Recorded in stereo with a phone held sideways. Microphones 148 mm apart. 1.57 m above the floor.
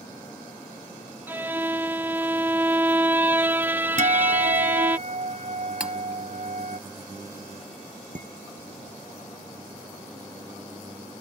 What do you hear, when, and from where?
1.3 s a violin: 15° right (ahead or behind)
4.0 s a guitar: 55° right (ahead or behind)
5.8 s cutlery clinking: 5° right (ahead or behind)
8.2 s dishes clattering: 60° right (ahead or behind)